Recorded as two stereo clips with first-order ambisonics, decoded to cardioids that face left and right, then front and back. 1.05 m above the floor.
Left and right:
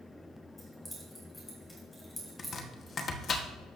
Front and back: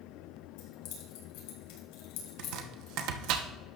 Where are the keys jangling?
5° left, 4 m.